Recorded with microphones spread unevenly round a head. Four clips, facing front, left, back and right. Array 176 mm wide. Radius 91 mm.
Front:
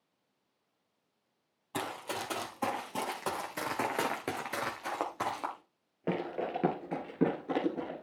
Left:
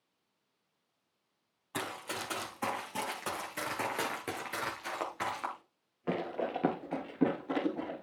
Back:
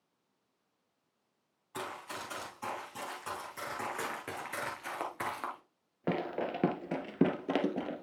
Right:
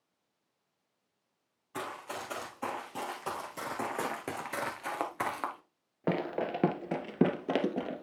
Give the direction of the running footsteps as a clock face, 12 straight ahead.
11 o'clock.